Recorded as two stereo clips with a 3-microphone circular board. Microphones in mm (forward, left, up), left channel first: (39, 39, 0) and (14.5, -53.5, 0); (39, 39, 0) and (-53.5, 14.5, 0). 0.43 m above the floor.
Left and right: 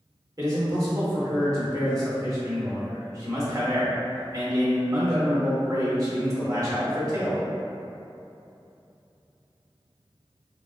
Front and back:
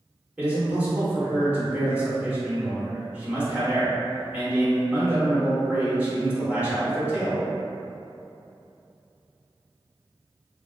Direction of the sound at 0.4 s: 100° right.